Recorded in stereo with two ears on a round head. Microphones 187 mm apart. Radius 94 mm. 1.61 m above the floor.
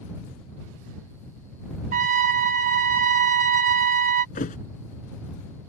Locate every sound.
1.9 s a trumpet: 40° right (ahead or behind)
4.3 s a thud: 35° left (ahead or behind)